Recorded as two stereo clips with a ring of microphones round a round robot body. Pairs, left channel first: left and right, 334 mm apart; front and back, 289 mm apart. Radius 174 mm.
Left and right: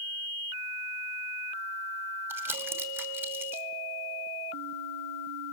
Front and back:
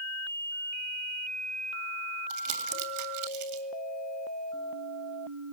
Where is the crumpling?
175° right, 2.5 m.